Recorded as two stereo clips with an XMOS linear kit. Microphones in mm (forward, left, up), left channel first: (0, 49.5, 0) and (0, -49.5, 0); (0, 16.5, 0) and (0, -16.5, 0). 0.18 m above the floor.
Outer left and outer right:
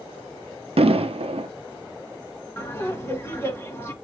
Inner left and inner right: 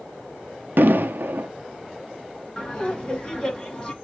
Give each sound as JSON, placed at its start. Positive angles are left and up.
{"t": 0.8, "sound": "an explosion", "side_deg": -80, "distance_m": 0.6}
{"t": 2.6, "sound": "laughter", "side_deg": 25, "distance_m": 1.7}